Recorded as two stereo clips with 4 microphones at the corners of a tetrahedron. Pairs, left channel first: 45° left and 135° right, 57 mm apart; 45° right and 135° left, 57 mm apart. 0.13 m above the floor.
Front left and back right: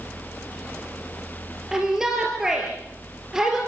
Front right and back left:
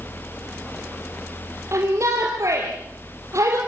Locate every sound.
1.7 s a shout: 145° left, 4 m